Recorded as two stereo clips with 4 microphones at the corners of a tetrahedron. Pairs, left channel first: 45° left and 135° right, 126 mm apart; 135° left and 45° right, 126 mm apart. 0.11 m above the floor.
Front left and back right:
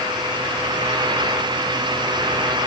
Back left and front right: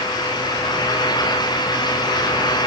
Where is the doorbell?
I don't hear a doorbell.